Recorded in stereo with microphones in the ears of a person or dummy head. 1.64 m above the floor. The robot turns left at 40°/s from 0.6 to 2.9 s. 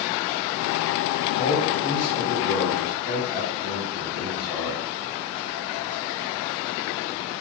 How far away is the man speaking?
About 1.2 m.